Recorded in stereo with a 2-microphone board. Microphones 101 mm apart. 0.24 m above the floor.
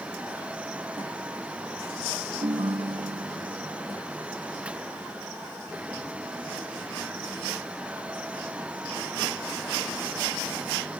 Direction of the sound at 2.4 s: 60° right (ahead or behind).